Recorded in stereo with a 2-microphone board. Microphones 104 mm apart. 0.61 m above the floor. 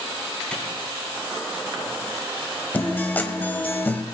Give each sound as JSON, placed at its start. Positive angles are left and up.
{"t": 0.5, "sound": "a clap", "side_deg": 10, "distance_m": 5.0}
{"t": 2.7, "sound": "a guitar", "side_deg": 20, "distance_m": 1.5}